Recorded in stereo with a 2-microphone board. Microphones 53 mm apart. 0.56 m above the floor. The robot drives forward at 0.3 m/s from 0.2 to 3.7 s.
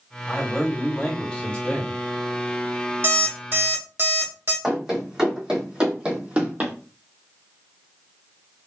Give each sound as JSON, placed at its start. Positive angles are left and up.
{"t": 0.3, "sound": "a man speaking", "side_deg": 15, "distance_m": 2.0}
{"t": 3.0, "sound": "an alarm clock", "side_deg": -50, "distance_m": 1.4}
{"t": 4.6, "sound": "running footsteps", "side_deg": -5, "distance_m": 2.0}